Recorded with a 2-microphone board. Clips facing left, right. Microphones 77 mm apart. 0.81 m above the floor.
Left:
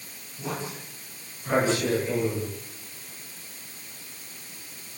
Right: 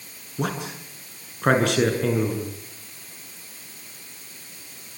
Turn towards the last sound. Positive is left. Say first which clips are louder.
# right 5 dB
turn(degrees=-80)